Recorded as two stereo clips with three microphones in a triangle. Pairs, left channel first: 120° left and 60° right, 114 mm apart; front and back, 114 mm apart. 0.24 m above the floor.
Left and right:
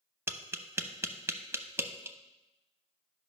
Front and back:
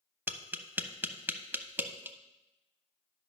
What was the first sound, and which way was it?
Tapping, 115° right.